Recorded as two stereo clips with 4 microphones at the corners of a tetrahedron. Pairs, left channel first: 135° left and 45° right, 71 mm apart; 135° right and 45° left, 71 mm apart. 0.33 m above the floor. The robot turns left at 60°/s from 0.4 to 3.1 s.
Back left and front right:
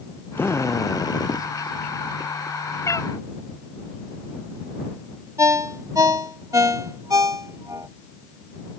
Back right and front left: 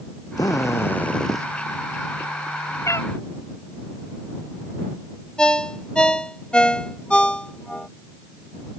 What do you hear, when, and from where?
0.4 s a drill: 165° right; by 1.5 s 130° left
2.9 s a cat meowing: straight behind; by 3.1 s 165° left
5.4 s a ringtone: 60° right